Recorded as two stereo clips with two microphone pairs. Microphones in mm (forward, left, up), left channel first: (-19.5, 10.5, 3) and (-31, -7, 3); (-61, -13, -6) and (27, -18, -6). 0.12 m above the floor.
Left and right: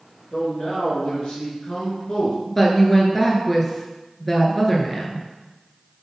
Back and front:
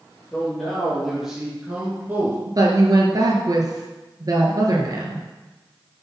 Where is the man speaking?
100° left, 3 m; by 2.4 s 30° left, 2 m.